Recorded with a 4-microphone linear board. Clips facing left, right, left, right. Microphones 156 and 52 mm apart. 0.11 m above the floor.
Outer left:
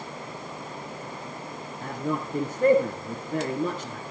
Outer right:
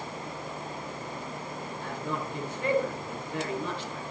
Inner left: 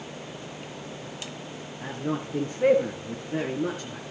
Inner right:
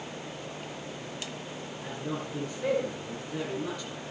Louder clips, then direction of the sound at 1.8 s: Outer left 6 dB, inner left 6 dB; 45° left (ahead or behind).